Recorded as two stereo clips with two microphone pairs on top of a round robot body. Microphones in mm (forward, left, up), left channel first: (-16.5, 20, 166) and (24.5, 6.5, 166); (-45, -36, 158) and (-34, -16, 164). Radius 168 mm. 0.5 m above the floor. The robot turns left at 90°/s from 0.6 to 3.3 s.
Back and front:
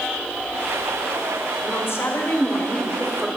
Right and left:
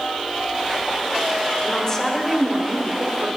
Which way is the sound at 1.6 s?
150° right.